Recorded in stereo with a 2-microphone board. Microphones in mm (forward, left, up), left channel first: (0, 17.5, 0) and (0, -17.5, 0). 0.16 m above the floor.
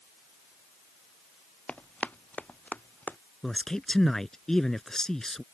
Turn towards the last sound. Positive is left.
turn(degrees=15)  # may be behind; listen again after turning